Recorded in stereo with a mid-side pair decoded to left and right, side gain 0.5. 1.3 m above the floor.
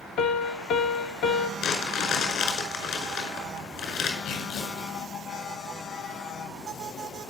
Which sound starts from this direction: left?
A piano, at 0.2 s.